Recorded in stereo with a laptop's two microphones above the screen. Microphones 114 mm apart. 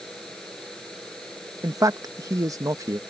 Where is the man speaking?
30° right (ahead or behind).